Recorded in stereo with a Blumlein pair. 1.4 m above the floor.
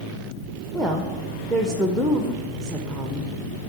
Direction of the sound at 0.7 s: Straight ahead.